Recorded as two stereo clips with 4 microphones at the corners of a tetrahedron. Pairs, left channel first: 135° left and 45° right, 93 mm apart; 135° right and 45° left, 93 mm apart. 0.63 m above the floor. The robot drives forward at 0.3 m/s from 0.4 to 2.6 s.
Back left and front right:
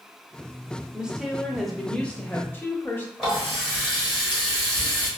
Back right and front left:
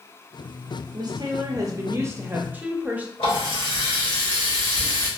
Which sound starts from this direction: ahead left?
A woman speaking, at 0.9 s.